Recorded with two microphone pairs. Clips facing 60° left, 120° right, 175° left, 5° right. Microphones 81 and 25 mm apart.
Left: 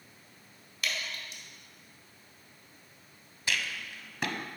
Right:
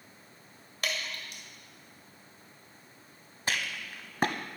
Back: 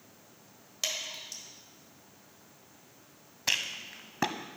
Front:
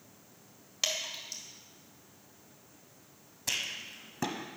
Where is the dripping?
80° right, 1.8 m.